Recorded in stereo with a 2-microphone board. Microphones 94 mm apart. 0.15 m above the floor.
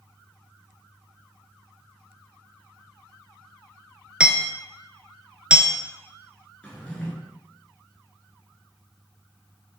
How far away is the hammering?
About 0.6 m.